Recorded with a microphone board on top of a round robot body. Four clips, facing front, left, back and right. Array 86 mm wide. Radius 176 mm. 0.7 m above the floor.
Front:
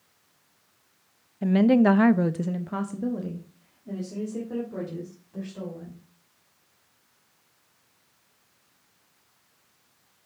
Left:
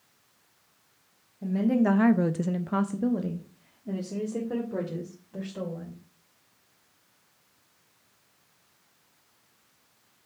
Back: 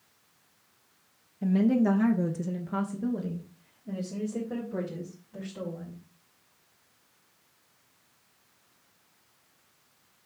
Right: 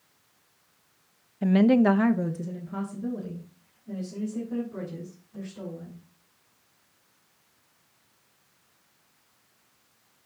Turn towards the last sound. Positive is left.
turn(degrees=85)